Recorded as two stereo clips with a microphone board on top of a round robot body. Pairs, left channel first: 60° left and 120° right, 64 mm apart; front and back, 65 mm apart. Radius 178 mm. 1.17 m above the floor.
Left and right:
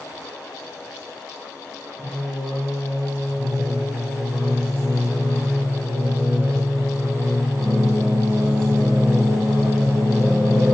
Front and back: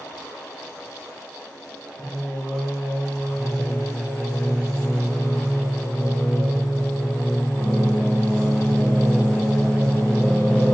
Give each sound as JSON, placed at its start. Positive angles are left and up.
{"t": 2.0, "sound": "singing", "azimuth_deg": -75, "distance_m": 1.5}